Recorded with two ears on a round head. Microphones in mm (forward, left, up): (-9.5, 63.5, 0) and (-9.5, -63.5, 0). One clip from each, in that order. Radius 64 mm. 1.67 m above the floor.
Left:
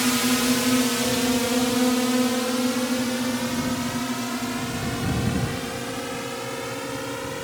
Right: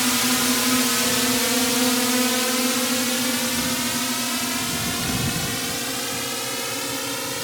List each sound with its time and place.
0.0 s a drone: 30° right (ahead or behind); by 7.4 s 85° right